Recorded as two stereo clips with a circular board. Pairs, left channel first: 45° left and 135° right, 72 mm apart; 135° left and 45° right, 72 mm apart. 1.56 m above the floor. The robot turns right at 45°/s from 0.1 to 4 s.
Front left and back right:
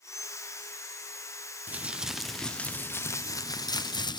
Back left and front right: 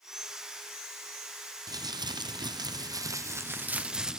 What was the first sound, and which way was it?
Crumpling, 70° right.